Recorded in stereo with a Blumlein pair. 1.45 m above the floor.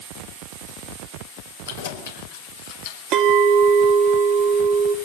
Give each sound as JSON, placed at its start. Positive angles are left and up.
{"t": 1.7, "sound": "keys jangling", "azimuth_deg": 60, "distance_m": 4.0}
{"t": 3.1, "sound": "a clink", "azimuth_deg": -35, "distance_m": 1.9}